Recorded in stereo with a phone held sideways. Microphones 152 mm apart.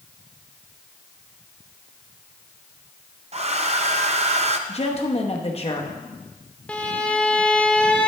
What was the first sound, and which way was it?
A hair dryer, 45° right (ahead or behind).